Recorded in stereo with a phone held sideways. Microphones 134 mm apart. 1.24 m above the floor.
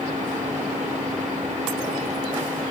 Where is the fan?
65° right (ahead or behind), 2 m.